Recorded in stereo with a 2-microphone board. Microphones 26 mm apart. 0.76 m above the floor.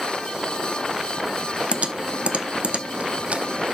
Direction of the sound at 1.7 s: 55° right (ahead or behind).